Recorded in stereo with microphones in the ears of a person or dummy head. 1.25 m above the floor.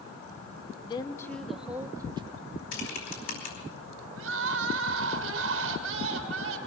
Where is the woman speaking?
30° left (ahead or behind), 1.7 m; by 2.5 s 30° right (ahead or behind), 2 m.